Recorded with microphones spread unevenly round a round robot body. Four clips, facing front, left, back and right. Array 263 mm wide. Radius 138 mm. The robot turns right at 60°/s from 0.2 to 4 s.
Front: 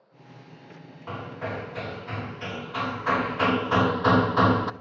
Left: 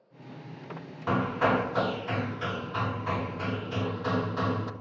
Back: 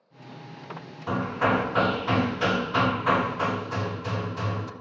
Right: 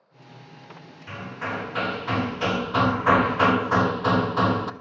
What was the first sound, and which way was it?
Hammering, 140° left.